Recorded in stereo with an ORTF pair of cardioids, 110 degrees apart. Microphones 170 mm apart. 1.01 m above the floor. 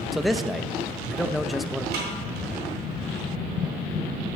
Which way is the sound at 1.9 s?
65° right.